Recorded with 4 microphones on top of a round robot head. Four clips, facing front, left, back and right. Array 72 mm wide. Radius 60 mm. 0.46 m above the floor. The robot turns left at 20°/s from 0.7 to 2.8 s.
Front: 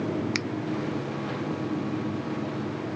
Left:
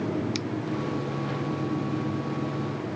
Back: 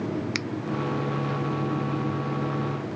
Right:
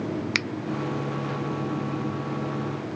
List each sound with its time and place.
0.3 s a finger snap: 90° right